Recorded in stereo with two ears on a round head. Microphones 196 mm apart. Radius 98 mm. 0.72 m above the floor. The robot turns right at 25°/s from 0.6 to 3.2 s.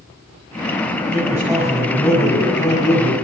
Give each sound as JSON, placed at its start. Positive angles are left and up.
{"t": 1.1, "sound": "a man speaking", "azimuth_deg": -15, "distance_m": 6.0}